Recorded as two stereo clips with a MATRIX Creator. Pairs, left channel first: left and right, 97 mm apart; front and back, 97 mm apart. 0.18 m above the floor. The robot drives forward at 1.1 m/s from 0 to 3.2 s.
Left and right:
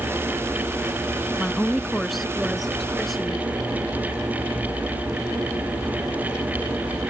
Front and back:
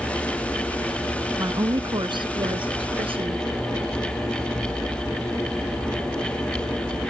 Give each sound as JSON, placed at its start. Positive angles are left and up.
{"t": 1.4, "sound": "a woman speaking", "azimuth_deg": 175}